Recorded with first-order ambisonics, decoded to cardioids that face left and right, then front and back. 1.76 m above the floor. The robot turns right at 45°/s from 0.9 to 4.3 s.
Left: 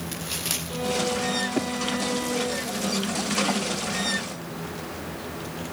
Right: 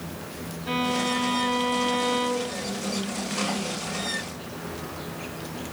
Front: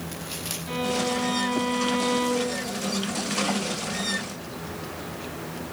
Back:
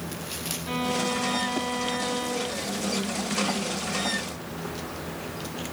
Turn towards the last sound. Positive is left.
turn(degrees=45)